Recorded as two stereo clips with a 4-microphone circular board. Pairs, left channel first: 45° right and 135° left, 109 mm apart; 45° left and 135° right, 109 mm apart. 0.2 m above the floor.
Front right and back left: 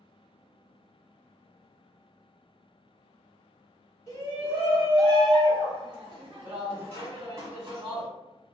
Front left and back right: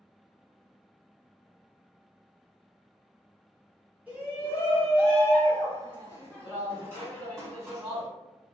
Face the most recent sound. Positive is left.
turn(degrees=170)